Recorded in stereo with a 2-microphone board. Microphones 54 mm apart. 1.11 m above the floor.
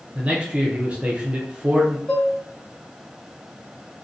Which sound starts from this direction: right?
A man speaking, at 0.1 s.